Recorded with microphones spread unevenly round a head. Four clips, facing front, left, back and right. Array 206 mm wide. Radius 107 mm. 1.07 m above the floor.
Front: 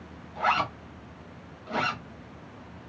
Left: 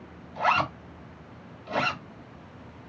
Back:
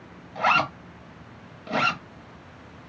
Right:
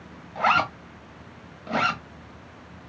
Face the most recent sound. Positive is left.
turn(degrees=-125)